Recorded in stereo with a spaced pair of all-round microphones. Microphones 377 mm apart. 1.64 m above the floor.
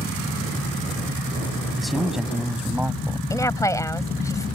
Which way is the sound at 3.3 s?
10° left (ahead or behind).